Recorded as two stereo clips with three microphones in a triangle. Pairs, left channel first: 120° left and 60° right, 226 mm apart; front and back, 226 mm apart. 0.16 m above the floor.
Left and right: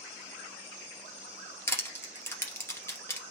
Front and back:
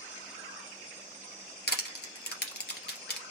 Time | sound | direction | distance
1.7 | crushing | 40° left | 2.5 m